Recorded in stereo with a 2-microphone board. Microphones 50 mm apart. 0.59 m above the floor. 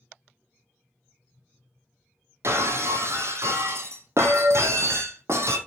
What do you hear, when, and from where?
2.4 s breaking glass: 65° right (ahead or behind), 1.2 m